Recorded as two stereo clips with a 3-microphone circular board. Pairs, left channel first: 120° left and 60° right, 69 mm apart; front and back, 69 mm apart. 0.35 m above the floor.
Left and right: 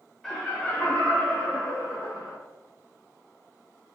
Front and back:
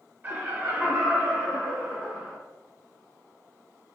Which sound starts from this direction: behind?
Laughter, at 0.2 s.